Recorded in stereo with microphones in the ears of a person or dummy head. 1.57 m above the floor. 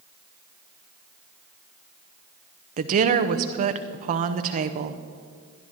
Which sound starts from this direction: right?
A woman speaking, at 2.8 s.